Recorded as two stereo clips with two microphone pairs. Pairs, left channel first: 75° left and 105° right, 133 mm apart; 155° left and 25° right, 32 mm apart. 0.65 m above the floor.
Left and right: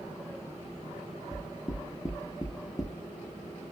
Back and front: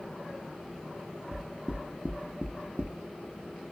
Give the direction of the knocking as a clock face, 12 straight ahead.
12 o'clock.